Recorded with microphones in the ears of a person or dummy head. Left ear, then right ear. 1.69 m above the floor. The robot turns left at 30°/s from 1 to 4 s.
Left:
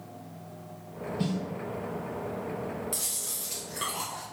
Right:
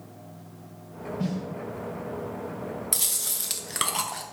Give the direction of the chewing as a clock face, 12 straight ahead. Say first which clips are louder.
Right 5 dB; 1 o'clock.